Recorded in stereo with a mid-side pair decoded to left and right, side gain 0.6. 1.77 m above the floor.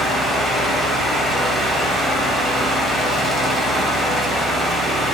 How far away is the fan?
About 0.7 m.